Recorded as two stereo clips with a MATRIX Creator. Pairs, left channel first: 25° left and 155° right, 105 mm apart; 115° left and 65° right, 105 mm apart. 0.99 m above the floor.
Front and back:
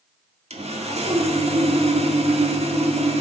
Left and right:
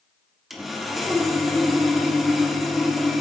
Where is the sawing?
155° right, 1.6 m.